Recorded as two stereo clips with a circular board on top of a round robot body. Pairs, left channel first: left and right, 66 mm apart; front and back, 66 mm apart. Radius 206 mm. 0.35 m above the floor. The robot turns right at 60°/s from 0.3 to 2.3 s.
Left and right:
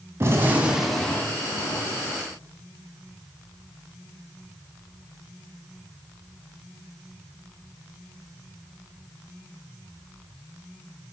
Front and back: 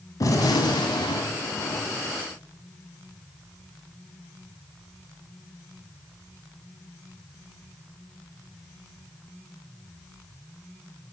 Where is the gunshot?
35° right, 0.7 m; by 2.2 s 80° left, 0.7 m.